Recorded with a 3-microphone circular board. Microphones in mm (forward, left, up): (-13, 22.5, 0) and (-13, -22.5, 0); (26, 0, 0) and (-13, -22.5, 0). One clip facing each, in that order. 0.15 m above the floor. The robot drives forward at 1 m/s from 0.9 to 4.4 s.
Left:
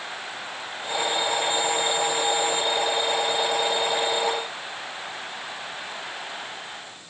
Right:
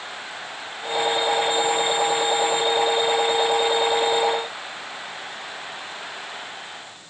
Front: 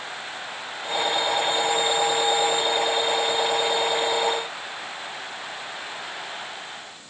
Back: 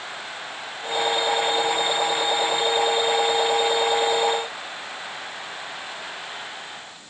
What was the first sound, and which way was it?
Only background noise.